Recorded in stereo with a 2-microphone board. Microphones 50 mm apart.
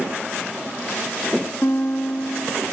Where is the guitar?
50° left (ahead or behind), 1.5 m.